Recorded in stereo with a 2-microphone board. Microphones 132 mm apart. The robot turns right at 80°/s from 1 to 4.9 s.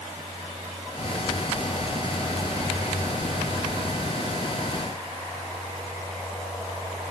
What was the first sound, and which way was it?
Only background noise.